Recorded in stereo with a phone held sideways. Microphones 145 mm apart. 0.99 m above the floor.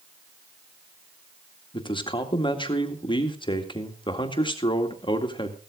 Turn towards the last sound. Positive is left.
turn(degrees=35)  # may be behind; listen again after turning